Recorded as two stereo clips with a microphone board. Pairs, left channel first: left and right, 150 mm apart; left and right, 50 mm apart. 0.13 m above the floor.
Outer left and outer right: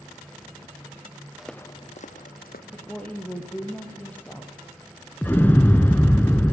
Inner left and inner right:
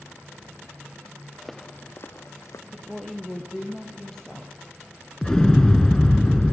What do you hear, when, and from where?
1.4 s footsteps: 5° right (ahead or behind), 0.9 m; by 2.6 s 80° left, 1.6 m
2.7 s a woman speaking: 10° left (ahead or behind), 3 m
5.2 s an explosion: 15° left (ahead or behind), 1.2 m